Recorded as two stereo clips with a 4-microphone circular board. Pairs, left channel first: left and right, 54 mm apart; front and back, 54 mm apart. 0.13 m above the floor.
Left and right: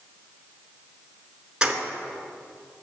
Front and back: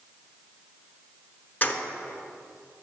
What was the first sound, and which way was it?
Keys jangling, 25° right.